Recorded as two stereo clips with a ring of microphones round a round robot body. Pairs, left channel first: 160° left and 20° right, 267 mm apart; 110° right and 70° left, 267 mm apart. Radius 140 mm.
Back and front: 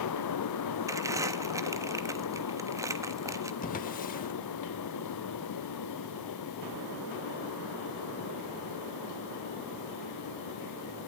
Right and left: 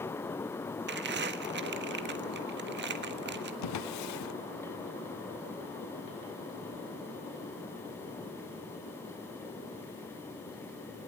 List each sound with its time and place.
0.9 s crumpling: 50° left, 1.4 m
3.6 s a drawer: 140° right, 0.9 m